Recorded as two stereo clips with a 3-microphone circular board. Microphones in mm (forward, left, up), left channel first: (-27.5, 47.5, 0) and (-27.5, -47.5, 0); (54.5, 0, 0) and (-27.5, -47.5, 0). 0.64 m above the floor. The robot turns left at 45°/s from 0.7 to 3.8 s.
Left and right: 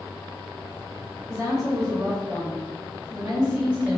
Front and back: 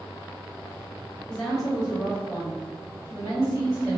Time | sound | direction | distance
1.3 | a woman speaking | 45° right | 1.4 m